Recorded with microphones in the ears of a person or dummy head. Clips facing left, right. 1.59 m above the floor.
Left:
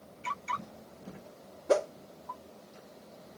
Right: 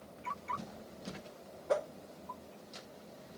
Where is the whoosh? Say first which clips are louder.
Left 6 dB; 50° left (ahead or behind).